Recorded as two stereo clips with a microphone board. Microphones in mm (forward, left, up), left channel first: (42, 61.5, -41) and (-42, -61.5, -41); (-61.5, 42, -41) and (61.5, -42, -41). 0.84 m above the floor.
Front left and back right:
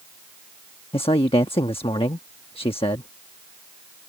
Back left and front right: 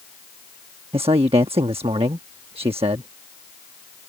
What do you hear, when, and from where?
0.9 s a man speaking: 10° left